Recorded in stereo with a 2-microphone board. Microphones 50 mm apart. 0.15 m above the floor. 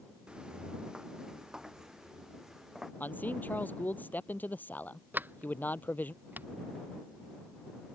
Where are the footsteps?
20° right (ahead or behind); by 2.9 s 10° right (ahead or behind).